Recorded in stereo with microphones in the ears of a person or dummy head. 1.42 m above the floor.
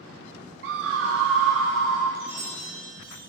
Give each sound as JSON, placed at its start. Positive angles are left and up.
{"t": 0.6, "sound": "a scream", "side_deg": -65, "distance_m": 0.7}
{"t": 2.1, "sound": "a chime", "side_deg": -55, "distance_m": 2.5}